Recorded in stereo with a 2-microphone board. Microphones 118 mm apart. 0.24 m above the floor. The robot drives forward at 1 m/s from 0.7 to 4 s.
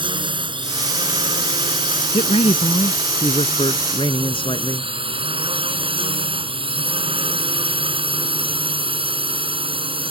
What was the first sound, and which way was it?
A drone, 45° right (ahead or behind).